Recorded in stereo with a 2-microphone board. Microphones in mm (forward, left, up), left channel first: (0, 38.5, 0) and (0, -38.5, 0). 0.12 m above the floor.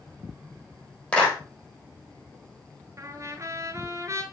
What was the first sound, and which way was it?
A clap, 15° left (ahead or behind).